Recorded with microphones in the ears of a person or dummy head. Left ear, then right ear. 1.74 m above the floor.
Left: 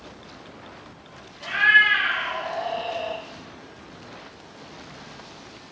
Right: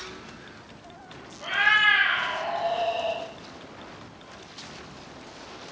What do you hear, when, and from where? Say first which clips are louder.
1.4 s a cat meowing: left 4 dB; 30° left (ahead or behind), 1.9 m; by 3.2 s centre (ahead or behind), 1.6 m